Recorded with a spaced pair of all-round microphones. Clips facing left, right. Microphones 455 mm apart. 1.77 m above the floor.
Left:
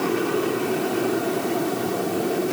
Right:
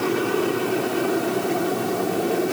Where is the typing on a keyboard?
I don't hear typing on a keyboard.